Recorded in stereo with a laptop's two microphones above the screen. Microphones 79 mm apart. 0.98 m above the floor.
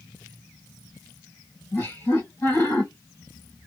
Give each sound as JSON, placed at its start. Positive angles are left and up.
{"t": 1.7, "sound": "laughter", "side_deg": 30, "distance_m": 1.3}